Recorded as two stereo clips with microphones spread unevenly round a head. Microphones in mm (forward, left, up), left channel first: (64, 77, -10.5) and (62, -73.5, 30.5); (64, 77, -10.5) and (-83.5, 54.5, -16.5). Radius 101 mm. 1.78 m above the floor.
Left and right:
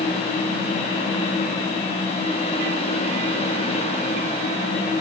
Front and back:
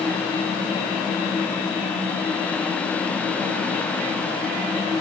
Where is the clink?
No clink in this recording.